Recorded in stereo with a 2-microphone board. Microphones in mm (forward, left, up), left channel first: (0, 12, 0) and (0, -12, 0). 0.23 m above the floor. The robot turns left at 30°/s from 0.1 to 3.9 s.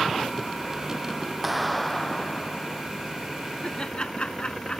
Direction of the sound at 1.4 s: 170° right.